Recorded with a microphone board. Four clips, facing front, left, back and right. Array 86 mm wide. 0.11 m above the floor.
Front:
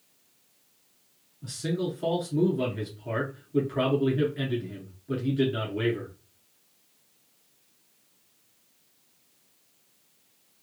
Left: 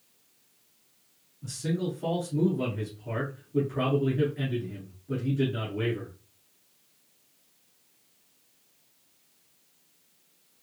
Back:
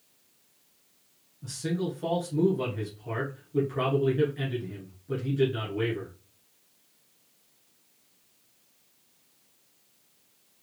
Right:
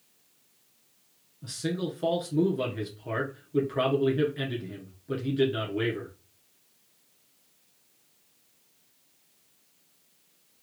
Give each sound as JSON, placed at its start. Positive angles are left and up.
{"t": 1.4, "sound": "a man speaking", "azimuth_deg": -70, "distance_m": 1.2}